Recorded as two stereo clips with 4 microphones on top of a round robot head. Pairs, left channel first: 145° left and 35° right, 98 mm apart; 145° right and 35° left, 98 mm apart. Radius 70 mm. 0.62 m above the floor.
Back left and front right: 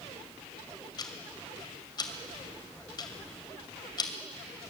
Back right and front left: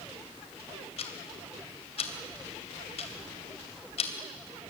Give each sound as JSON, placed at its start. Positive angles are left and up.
{"t": 1.0, "sound": "ticking", "azimuth_deg": -165, "distance_m": 2.5}